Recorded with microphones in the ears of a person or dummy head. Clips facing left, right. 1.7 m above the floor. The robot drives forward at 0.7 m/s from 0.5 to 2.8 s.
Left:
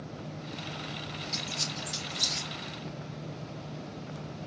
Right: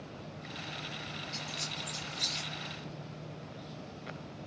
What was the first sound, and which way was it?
A squeak, 50° left (ahead or behind).